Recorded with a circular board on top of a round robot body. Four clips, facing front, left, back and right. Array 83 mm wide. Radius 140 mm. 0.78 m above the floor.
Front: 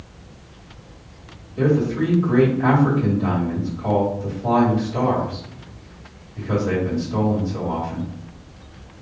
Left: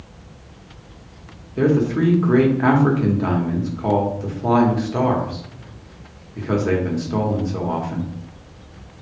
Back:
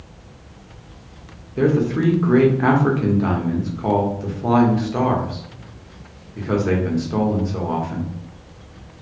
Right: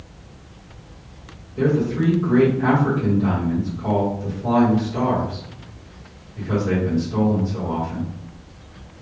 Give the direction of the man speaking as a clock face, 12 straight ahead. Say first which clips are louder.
Left 2 dB, back 1 dB; 8 o'clock.